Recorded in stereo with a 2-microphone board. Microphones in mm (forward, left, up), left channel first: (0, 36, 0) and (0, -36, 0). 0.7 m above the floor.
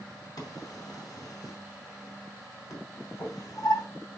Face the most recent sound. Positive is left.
turn(degrees=60)  # may be behind; listen again after turning